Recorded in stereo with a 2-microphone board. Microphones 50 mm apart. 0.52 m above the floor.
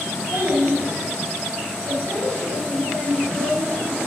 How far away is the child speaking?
About 4 m.